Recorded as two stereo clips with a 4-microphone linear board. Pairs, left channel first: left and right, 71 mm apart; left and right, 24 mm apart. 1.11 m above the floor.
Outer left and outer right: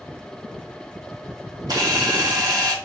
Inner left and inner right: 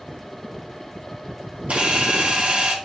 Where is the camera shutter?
70° right (ahead or behind), 1.8 m.